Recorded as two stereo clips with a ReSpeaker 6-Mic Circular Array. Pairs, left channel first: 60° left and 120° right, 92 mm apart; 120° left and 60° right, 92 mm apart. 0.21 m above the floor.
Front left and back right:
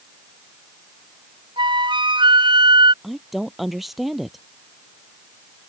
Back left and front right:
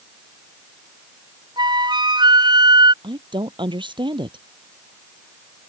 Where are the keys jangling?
No keys jangling in this recording.